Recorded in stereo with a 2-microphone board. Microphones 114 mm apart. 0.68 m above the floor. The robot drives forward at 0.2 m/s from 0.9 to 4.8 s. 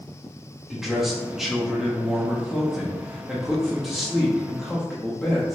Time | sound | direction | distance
0.7 | a man speaking | 5° right (ahead or behind) | 0.8 m